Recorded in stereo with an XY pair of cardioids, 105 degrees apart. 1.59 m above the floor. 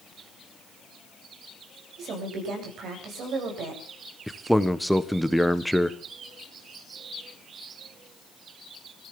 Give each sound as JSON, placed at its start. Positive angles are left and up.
{"t": 2.0, "sound": "a woman speaking", "azimuth_deg": -70, "distance_m": 9.0}
{"t": 4.3, "sound": "a man speaking", "azimuth_deg": 0, "distance_m": 1.4}